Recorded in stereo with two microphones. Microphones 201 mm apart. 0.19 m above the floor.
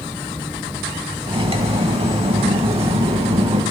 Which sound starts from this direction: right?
Cutlery clinking, at 1.3 s.